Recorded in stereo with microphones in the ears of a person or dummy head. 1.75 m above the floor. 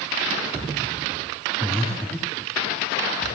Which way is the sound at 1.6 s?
5° left (ahead or behind).